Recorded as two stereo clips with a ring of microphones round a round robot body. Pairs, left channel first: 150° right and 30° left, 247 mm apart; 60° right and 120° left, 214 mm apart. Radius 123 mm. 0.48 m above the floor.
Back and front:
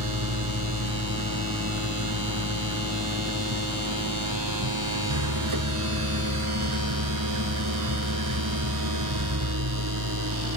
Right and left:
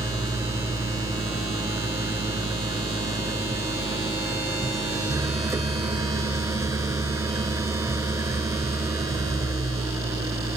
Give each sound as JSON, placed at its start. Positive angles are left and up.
{"t": 0.0, "sound": "an engine running", "azimuth_deg": 45}